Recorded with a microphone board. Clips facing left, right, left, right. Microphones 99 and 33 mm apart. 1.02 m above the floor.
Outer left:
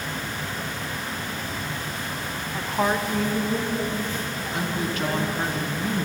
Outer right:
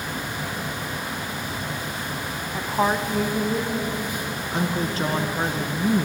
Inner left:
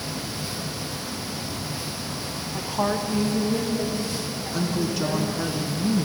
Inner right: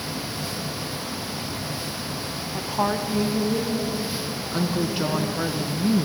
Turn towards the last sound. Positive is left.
turn(degrees=-30)  # may be behind; listen again after turning